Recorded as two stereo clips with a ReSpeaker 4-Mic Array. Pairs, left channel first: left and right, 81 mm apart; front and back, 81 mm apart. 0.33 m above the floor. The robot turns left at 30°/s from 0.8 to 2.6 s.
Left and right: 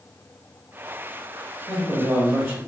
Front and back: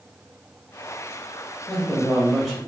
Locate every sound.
1.7 s a man speaking: 70° right, 0.9 m; by 2.6 s 100° right, 0.9 m